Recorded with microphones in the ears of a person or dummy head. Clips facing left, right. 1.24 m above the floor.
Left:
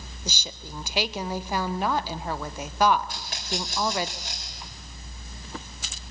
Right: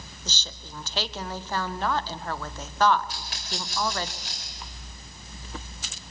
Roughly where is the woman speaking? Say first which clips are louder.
Left 5 dB; centre.